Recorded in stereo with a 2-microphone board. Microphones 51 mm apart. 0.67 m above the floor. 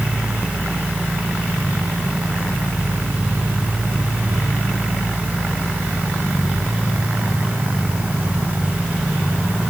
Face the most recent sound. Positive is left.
No sound to turn to.